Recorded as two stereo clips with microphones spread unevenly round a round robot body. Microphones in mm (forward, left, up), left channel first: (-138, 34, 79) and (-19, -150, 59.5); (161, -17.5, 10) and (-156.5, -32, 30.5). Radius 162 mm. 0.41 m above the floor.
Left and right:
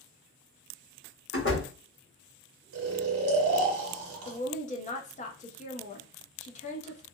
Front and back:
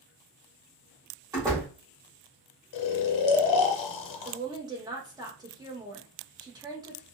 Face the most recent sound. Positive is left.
turn(degrees=110)